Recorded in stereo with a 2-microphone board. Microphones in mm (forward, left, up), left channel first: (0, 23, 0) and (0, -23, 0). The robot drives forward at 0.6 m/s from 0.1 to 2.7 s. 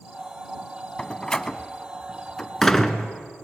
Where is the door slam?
20° left (ahead or behind), 0.7 m; by 3.1 s 10° left (ahead or behind), 1.2 m.